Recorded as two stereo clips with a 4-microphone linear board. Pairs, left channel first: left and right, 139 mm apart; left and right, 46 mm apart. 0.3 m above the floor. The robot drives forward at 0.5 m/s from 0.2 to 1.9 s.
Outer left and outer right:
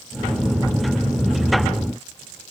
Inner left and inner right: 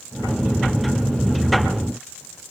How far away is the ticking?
No ticking in this recording.